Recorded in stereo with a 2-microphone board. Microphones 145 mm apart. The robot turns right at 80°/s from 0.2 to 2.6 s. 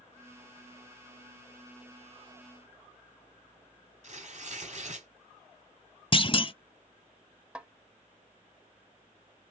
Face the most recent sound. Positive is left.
turn(degrees=-5)  # may be behind; listen again after turning